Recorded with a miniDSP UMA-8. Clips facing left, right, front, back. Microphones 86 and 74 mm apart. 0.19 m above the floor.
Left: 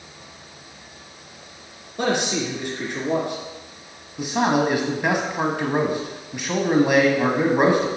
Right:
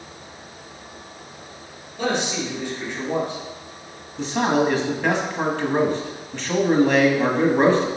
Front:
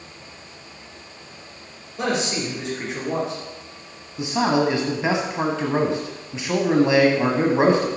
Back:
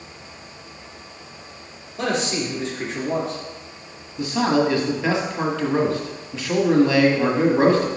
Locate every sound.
2.0 s a man speaking: 85° left, 3 m
4.2 s a man speaking: 30° left, 1.0 m